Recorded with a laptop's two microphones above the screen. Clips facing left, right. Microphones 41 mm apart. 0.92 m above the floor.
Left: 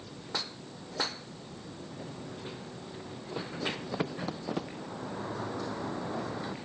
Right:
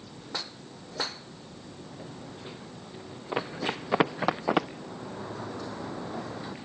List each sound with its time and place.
3.3 s running footsteps: 70° right (ahead or behind); by 4.7 s 75° right (ahead or behind)
4.8 s a sliding door: 10° left (ahead or behind)